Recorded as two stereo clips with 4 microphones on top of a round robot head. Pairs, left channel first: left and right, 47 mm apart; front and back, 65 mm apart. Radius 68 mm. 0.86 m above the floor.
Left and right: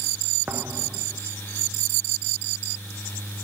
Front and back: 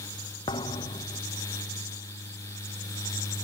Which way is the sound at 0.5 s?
20° right.